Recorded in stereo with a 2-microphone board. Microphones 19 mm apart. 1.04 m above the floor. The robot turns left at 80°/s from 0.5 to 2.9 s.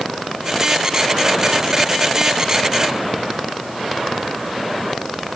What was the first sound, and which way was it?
Only background noise.